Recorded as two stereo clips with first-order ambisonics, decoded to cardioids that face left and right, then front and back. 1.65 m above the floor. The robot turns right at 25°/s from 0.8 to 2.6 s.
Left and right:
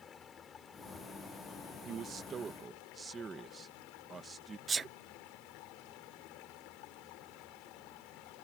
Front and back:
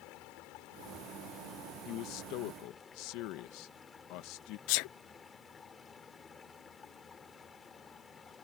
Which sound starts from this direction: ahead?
A sneeze, at 4.7 s.